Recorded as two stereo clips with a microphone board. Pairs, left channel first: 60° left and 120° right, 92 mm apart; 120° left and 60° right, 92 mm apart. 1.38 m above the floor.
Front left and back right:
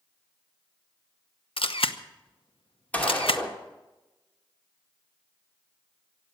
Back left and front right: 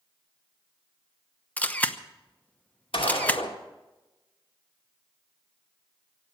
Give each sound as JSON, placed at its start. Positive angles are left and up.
{"t": 1.6, "sound": "a camera shutter", "azimuth_deg": 50, "distance_m": 0.9}
{"t": 2.9, "sound": "a gunshot", "azimuth_deg": 135, "distance_m": 2.5}